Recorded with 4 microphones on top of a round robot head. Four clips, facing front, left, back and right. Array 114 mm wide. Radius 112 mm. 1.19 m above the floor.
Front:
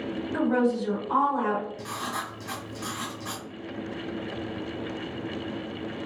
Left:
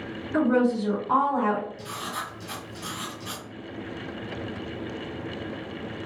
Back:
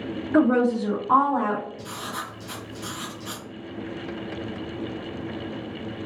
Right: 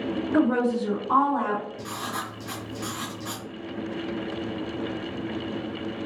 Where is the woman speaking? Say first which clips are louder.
Left 1 dB, back 5 dB; straight behind, 0.6 m; by 1.7 s 145° left, 1.4 m.